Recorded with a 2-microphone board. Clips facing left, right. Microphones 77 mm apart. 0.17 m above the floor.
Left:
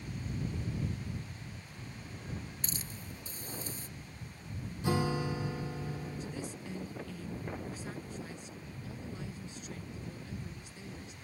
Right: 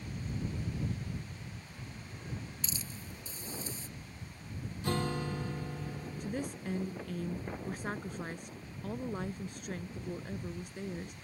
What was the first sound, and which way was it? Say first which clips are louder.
A hiss: even; 50° left (ahead or behind).